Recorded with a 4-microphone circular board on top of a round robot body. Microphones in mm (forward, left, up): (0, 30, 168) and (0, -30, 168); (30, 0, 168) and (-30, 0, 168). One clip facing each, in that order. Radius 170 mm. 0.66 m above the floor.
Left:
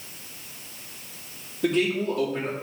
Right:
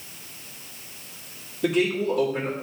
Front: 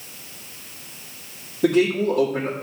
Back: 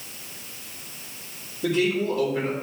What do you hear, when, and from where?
1.6 s a man speaking: straight ahead, 2 m